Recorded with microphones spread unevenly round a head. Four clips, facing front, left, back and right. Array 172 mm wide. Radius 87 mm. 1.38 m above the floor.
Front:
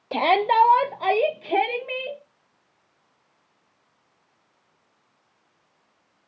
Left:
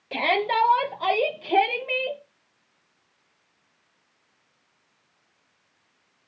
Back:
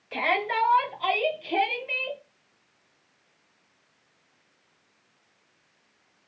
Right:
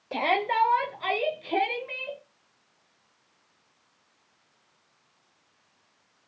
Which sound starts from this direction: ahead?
A shout, at 0.1 s.